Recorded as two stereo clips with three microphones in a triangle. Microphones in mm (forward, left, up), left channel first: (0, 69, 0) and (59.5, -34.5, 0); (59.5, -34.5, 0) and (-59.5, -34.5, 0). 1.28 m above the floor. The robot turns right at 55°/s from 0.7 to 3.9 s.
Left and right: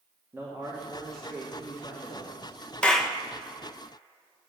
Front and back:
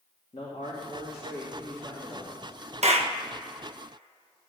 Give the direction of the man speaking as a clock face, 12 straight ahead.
12 o'clock.